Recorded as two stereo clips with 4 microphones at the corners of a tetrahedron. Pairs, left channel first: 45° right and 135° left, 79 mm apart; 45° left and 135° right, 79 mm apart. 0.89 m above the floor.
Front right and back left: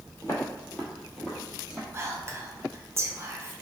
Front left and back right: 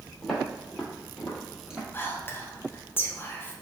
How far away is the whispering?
About 0.5 m.